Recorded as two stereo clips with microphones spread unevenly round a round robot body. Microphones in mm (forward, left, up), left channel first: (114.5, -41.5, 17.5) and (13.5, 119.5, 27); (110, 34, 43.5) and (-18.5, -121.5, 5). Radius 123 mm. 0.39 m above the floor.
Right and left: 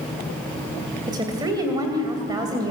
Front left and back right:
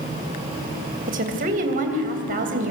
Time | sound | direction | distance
1.1 | a woman speaking | 165° right | 2.5 m